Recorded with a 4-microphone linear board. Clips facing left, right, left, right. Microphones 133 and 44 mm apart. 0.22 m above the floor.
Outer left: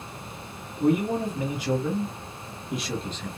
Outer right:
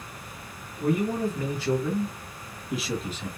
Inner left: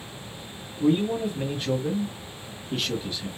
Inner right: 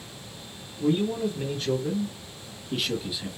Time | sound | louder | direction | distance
0.8 | a man speaking | outer left 2 dB, inner left 2 dB | 20° left (ahead or behind) | 1.3 m